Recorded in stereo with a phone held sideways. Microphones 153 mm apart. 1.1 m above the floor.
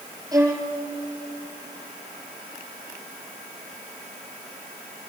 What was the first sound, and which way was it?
A violin, 20° right (ahead or behind).